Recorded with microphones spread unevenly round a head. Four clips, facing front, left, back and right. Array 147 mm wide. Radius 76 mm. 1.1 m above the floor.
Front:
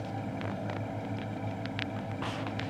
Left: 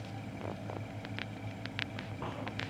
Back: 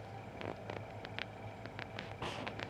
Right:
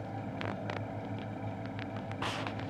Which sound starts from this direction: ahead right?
A fan, at 0.0 s.